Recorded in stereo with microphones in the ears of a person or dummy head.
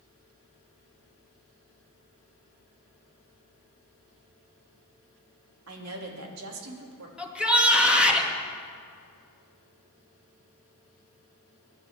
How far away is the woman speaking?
About 2.5 m.